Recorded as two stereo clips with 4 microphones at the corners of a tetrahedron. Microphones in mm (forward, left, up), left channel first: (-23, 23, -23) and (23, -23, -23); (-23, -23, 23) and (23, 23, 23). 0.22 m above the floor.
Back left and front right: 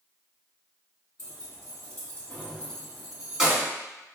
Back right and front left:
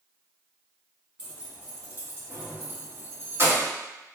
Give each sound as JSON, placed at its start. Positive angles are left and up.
{"t": 1.2, "sound": "keys jangling", "azimuth_deg": 120, "distance_m": 1.8}